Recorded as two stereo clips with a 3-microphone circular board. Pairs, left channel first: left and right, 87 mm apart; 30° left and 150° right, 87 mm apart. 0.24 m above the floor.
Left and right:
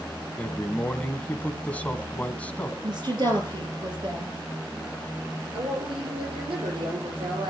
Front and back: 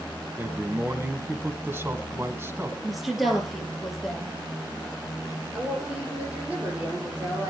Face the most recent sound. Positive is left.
turn(degrees=-75)